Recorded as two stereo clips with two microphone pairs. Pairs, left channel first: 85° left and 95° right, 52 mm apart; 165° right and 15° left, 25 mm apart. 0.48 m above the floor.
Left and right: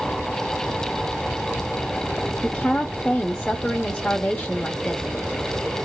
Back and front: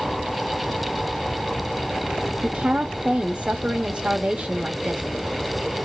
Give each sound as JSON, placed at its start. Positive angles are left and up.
{"t": 2.4, "sound": "a woman speaking", "azimuth_deg": 15, "distance_m": 1.0}